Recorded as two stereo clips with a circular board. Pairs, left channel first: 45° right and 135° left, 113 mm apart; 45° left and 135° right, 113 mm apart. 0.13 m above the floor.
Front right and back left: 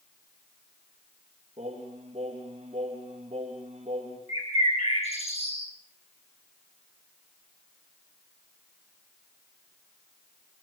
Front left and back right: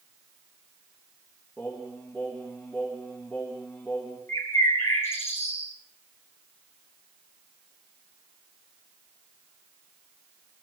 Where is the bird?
20° right, 7.5 m.